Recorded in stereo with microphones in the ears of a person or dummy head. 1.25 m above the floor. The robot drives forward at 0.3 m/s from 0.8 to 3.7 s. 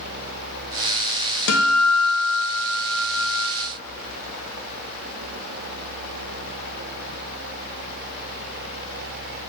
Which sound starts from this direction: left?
A guitar, at 1.5 s.